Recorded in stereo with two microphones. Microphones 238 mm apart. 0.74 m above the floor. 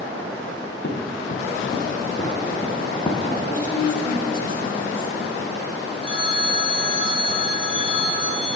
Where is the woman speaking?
35° left (ahead or behind), 3 m.